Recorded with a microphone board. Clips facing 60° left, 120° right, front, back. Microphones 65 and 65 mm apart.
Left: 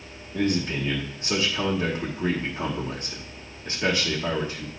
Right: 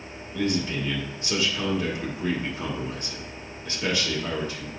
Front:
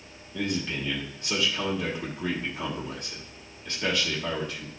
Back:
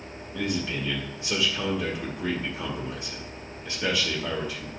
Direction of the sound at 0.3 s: 100° left.